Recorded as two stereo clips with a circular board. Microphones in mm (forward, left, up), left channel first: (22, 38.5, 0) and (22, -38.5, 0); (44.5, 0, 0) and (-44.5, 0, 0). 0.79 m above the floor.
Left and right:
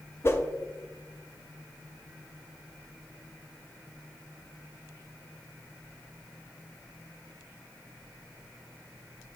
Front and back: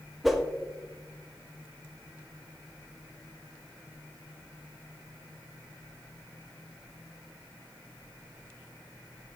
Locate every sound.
0.2 s a whoosh: 95° left, 0.5 m